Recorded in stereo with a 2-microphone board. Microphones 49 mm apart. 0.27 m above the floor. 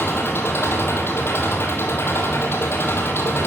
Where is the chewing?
No chewing in this recording.